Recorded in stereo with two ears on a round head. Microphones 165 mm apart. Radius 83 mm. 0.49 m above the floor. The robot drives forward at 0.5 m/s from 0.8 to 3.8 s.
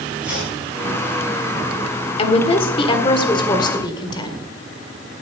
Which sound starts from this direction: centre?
Chopping, at 0.2 s.